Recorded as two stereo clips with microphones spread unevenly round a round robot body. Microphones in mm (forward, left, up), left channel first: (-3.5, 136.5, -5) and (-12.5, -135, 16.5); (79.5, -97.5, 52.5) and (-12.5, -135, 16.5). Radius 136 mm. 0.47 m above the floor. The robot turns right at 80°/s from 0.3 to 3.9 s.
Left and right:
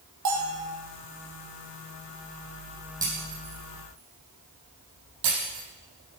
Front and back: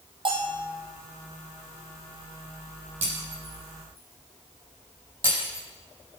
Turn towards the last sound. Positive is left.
turn(degrees=-100)